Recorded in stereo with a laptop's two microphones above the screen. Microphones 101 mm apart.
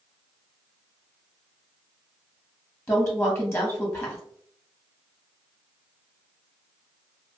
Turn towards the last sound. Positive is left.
turn(degrees=25)  # may be behind; listen again after turning